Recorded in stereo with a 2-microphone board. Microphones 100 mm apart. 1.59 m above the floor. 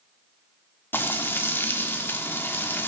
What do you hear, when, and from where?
0.9 s frying: 20° left (ahead or behind), 1.4 m